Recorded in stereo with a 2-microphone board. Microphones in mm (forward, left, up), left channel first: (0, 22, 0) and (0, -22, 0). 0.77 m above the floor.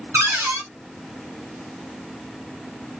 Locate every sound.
0.1 s a cupboard door: 75° right (ahead or behind), 1.9 m